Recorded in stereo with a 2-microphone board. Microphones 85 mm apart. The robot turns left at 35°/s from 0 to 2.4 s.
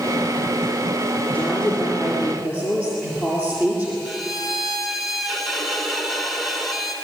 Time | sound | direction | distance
1.3 | a woman speaking | 20° left | 6.5 m
4.0 | a violin | centre (ahead or behind) | 3.5 m